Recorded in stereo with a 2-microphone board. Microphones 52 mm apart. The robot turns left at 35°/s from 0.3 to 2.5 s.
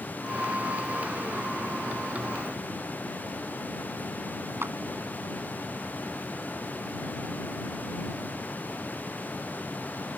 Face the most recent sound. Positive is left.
turn(degrees=-50)  # may be behind; listen again after turning